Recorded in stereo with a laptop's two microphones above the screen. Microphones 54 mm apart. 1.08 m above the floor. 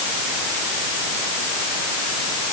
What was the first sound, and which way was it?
Only background noise.